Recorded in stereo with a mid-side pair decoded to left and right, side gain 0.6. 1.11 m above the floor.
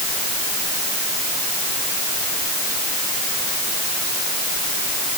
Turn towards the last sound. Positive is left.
No sound to turn to.